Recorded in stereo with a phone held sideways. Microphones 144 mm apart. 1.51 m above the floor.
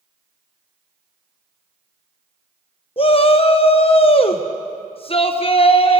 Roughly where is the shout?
Left.